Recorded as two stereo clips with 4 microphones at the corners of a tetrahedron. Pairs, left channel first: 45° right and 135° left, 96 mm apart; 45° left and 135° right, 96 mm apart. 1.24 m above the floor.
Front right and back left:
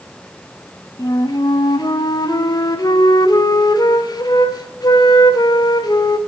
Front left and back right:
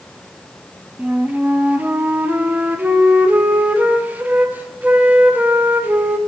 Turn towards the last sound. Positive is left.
turn(degrees=-70)